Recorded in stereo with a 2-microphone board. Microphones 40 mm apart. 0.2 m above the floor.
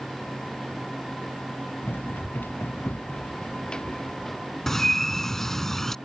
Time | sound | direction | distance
1.8 | running footsteps | 65° left (ahead or behind) | ?
4.7 | a bird | 10° left (ahead or behind) | ?